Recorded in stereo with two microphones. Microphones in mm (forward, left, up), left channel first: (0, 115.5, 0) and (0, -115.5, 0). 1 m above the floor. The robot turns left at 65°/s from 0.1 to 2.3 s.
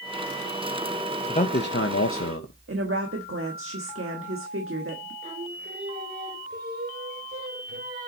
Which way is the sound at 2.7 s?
65° right (ahead or behind).